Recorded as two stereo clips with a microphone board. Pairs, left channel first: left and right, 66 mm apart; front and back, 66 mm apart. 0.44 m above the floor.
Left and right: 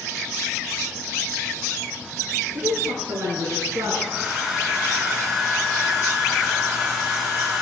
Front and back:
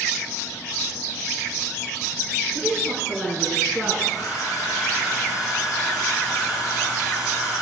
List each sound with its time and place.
2.5 s a woman speaking: 85° right, 4.5 m; by 3.9 s 100° right, 4 m
4.0 s a hair dryer: 10° right, 6 m